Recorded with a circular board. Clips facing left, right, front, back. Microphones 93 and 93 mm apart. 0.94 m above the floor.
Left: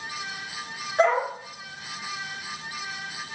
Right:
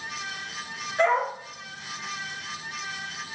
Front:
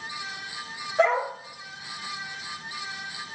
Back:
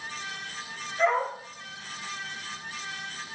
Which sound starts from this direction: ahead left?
A dog barking, at 1.0 s.